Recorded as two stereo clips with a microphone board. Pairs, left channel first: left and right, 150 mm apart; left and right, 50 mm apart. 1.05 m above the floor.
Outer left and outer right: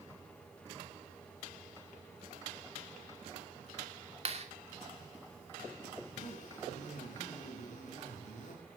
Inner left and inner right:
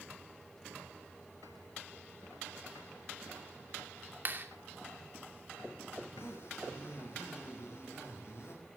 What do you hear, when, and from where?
4.2 s a clap: 45° right (ahead or behind), 2.5 m
6.0 s a zipper: 55° left (ahead or behind), 8.5 m